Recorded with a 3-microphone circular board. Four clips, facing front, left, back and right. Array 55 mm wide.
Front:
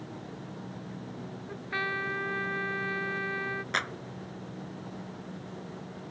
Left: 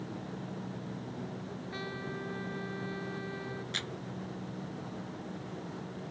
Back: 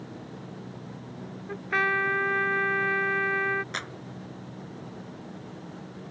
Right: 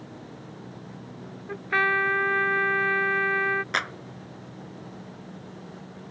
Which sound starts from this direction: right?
A clap, at 3.7 s.